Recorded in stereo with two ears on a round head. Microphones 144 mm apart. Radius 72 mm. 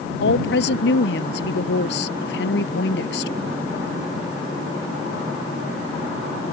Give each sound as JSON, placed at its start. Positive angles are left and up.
{"t": 0.2, "sound": "a woman speaking", "side_deg": 75}